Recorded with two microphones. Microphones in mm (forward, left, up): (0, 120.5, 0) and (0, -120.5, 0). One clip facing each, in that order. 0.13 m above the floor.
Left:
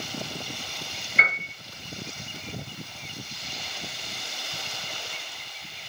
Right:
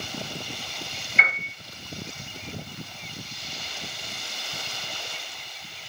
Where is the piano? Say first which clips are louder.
Left 1 dB; 50° left (ahead or behind), 1.0 m.